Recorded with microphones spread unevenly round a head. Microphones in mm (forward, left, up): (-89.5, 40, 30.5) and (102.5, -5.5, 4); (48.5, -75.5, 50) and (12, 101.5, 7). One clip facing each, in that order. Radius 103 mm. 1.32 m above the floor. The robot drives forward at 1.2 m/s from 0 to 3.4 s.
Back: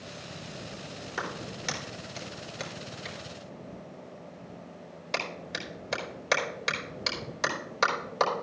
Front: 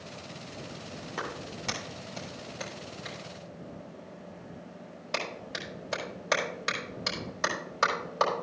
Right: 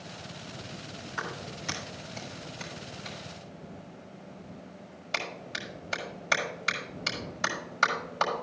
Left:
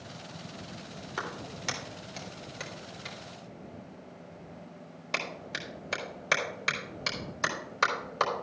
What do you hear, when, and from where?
1.2 s a clap: 85° left, 3.5 m; by 8.3 s 125° left, 4 m